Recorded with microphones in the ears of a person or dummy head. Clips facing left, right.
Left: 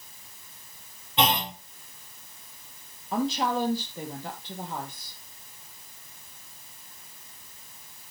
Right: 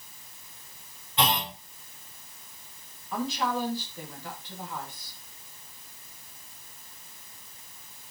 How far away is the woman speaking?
About 1.8 m.